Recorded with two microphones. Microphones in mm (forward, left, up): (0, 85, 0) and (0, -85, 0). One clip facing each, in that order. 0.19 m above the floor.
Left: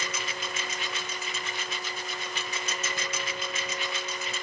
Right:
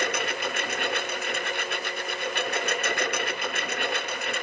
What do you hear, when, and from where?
0.0 s a lawn mower: 60° right (ahead or behind)